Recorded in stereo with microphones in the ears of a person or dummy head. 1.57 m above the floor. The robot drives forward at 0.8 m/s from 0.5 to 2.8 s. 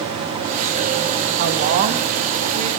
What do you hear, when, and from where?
1.4 s a woman speaking: 50° right (ahead or behind), 2 m; by 2.7 s 35° right (ahead or behind), 3 m